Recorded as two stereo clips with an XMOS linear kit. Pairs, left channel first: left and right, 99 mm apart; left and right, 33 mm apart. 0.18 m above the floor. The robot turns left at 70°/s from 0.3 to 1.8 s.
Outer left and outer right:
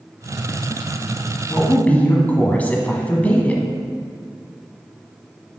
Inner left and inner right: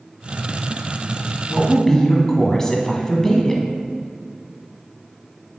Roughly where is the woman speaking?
Left.